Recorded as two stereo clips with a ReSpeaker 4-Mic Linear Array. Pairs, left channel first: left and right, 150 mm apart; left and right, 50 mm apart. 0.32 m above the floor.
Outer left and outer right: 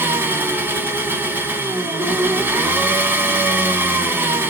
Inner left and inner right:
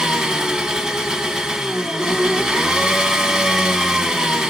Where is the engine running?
15° right (ahead or behind), 0.8 m.